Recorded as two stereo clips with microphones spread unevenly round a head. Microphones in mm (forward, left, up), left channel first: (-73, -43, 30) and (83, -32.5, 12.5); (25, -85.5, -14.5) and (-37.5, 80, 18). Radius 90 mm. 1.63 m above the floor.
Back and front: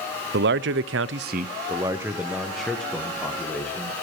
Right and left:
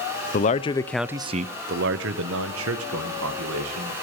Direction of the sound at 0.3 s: 20° right.